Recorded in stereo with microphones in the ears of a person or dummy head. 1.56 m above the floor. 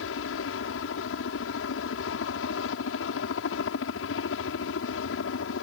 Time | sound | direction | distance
0.0 | a helicopter | 65° left (ahead or behind) | ?